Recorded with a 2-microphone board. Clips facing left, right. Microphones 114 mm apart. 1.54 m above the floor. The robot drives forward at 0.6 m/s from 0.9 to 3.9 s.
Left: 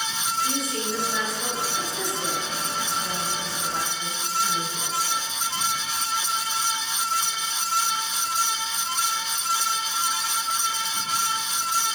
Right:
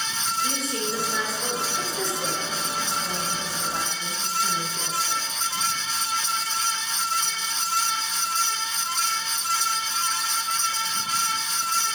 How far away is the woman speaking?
About 4 m.